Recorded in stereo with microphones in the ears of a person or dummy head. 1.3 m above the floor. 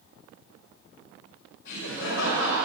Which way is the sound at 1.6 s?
65° left (ahead or behind).